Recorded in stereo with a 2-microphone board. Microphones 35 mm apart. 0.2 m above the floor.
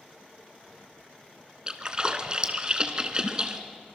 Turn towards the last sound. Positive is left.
turn(degrees=-25)  # may be behind; listen again after turning